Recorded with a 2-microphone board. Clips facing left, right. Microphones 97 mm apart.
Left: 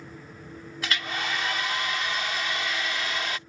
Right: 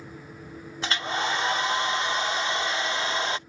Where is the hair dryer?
30° right (ahead or behind).